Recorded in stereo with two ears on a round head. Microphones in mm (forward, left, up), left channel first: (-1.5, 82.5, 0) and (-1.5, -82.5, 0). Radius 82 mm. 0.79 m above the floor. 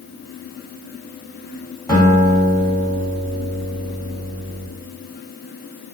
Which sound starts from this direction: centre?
A guitar, at 1.9 s.